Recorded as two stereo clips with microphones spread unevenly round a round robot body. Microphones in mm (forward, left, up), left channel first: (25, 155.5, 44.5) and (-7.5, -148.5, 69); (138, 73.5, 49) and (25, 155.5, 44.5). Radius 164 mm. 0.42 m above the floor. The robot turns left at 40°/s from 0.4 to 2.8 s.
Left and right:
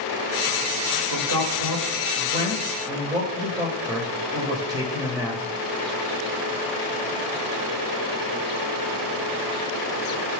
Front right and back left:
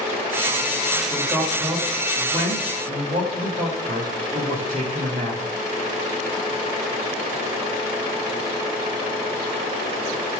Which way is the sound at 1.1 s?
110° right.